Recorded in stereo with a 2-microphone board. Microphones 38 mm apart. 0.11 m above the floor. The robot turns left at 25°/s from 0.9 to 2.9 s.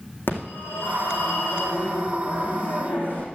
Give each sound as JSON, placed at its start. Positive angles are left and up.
{"t": 0.3, "sound": "a phone ringing", "azimuth_deg": 110, "distance_m": 4.5}